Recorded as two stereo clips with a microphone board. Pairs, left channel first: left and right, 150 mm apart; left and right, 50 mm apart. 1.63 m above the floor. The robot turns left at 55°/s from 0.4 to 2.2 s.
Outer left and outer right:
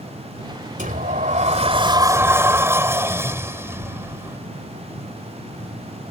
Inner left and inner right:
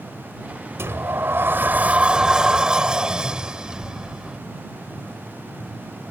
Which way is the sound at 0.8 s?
85° right.